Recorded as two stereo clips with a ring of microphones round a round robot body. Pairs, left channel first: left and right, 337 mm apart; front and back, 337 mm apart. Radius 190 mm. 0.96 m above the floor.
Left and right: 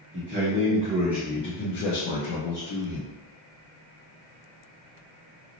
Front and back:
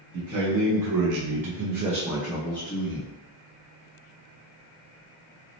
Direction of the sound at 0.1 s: 145° right.